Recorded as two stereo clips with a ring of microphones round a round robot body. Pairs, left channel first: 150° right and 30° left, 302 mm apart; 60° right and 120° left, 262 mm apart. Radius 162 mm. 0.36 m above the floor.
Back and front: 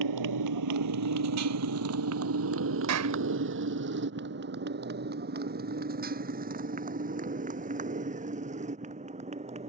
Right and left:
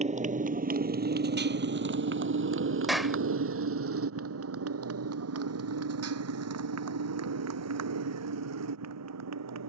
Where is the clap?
30° left.